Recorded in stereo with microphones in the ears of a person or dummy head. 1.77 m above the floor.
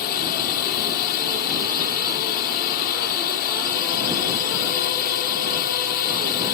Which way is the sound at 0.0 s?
45° left (ahead or behind).